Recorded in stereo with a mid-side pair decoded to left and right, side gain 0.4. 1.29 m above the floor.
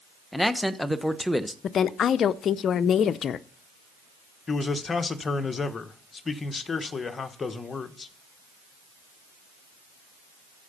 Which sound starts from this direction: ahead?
A man speaking, at 0.3 s.